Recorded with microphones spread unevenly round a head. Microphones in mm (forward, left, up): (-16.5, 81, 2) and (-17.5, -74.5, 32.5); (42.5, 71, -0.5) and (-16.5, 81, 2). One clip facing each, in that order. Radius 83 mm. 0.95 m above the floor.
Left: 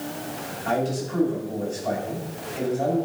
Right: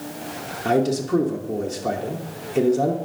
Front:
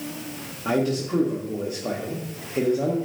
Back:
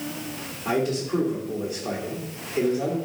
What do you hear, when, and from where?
0.7 s a man speaking: 85° right, 1.0 m